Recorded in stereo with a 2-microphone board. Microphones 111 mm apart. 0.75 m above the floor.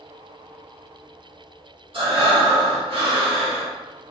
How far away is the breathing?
About 1.5 m.